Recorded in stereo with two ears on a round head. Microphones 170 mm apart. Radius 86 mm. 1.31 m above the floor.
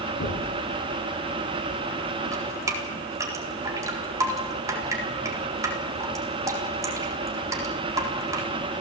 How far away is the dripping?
About 4 m.